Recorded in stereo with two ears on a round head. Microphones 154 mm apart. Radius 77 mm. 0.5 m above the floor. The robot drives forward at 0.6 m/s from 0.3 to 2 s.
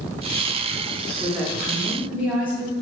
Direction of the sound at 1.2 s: 10° right (ahead or behind).